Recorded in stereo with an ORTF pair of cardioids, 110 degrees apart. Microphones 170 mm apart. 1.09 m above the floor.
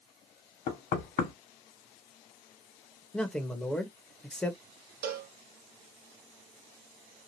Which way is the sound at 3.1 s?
5° left.